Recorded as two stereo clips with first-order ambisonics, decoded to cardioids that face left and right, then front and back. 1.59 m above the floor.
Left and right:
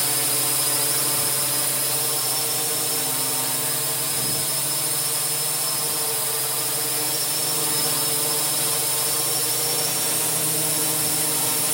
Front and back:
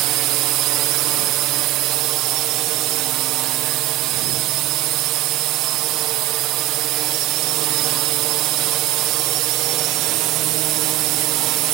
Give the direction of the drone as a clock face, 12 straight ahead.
6 o'clock.